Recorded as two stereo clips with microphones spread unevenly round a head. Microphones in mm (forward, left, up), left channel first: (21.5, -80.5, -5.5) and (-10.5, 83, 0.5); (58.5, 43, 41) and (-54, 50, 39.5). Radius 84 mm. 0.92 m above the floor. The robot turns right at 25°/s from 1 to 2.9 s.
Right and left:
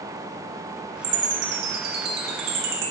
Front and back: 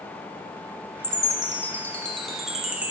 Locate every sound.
1.0 s a chime: 50° left, 0.7 m; by 2.9 s 100° left, 0.7 m